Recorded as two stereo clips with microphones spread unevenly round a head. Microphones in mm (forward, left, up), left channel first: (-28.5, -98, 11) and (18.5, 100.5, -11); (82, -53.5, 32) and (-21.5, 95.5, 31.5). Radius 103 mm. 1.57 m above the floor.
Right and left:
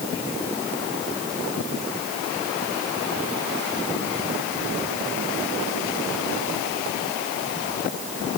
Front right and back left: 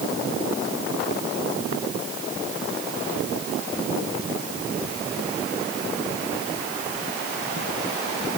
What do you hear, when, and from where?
Only background noise.